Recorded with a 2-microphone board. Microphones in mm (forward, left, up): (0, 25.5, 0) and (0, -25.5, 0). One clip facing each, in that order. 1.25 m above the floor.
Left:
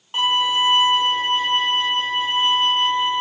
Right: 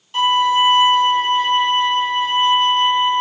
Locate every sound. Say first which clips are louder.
0.1 s a violin: right 5 dB; 35° left (ahead or behind), 1.2 m